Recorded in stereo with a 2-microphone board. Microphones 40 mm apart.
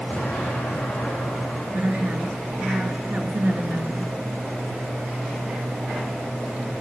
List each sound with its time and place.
0.1 s an explosion: 40° left (ahead or behind), 4.5 m
1.7 s a woman speaking: 50° right (ahead or behind), 1.9 m